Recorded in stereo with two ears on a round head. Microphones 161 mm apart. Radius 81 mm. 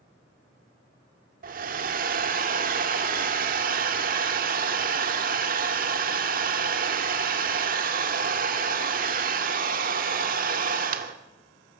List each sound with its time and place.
1.4 s a hair dryer: 50° right (ahead or behind), 1.8 m